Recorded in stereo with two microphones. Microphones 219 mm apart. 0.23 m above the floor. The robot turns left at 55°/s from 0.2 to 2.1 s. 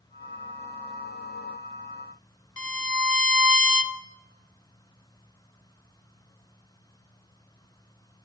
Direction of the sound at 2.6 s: 75° left (ahead or behind).